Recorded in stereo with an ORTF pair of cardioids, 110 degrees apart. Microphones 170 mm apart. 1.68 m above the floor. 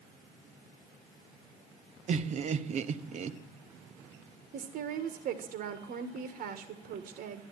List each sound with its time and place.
2.1 s laughter: 45° right, 1.1 m
4.5 s a woman speaking: 60° right, 1.6 m